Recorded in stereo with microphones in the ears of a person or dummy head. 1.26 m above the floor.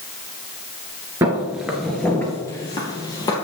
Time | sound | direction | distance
1.2 | footsteps | 15° right (ahead or behind) | 1.3 m